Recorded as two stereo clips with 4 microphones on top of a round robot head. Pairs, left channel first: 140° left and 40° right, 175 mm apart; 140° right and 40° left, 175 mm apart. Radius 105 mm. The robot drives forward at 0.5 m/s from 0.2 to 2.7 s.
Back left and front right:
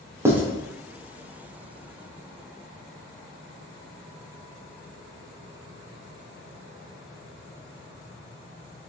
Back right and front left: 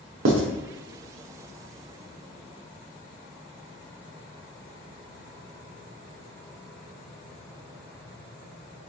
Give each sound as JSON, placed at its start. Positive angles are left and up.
{"t": 0.2, "sound": "writing", "azimuth_deg": 35, "distance_m": 0.7}